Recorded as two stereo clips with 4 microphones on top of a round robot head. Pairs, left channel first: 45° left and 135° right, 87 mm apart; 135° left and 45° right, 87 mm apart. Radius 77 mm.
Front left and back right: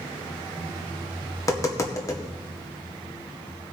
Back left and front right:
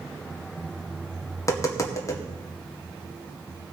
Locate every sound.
1.4 s tapping: 90° left, 2.0 m